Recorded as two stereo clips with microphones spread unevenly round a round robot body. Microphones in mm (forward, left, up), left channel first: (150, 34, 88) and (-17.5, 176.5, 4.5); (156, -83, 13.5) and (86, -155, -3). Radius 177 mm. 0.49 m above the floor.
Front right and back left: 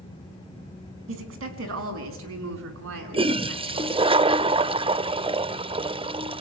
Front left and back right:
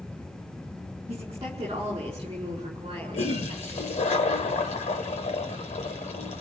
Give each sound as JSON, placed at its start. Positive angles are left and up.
{"t": 1.1, "sound": "a woman speaking", "azimuth_deg": 150, "distance_m": 5.0}
{"t": 3.1, "sound": "a toilet flushing", "azimuth_deg": 75, "distance_m": 0.8}